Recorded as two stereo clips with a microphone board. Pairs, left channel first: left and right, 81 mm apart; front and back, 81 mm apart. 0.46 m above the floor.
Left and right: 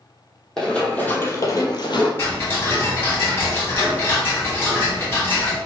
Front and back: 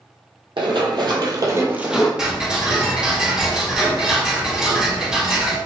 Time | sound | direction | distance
0.6 | running footsteps | 175° left | 1.3 m
2.2 | ticking | 110° left | 1.3 m